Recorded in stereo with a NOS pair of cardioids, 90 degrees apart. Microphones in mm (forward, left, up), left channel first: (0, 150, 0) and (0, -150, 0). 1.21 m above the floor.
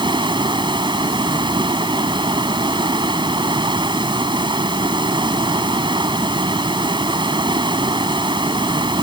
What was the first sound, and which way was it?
Running water, 15° right.